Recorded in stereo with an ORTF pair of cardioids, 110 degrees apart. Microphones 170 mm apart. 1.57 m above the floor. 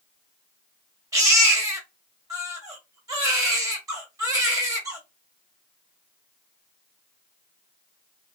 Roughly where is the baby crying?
Ahead.